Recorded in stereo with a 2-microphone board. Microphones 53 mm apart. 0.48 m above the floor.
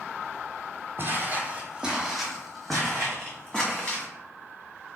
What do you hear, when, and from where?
1.0 s footsteps: 40° right (ahead or behind), 0.9 m; by 4.1 s 25° left (ahead or behind), 1.7 m